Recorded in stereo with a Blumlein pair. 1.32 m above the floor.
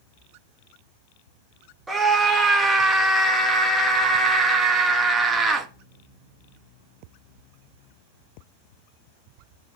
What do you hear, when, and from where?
1.9 s a scream: 10° right, 2 m